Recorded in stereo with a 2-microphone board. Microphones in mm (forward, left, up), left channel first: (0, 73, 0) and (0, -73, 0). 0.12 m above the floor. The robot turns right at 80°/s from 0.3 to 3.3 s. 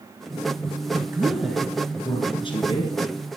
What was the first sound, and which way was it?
A woman speaking, 45° right.